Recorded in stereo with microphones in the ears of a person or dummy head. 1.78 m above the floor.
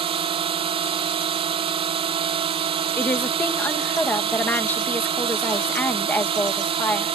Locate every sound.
0.0 s a drone: 20° right (ahead or behind)
3.0 s a woman speaking: 5° left (ahead or behind)